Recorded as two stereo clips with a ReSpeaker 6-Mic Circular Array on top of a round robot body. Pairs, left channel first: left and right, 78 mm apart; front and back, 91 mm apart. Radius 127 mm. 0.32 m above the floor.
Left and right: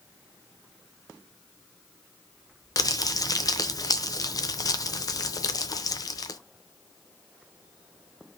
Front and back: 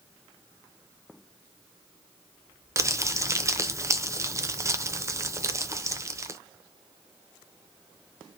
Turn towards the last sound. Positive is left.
turn(degrees=125)